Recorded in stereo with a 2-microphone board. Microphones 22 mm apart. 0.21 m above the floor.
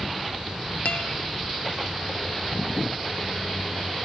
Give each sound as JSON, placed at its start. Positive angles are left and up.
{"t": 0.8, "sound": "a guitar", "side_deg": 80, "distance_m": 0.8}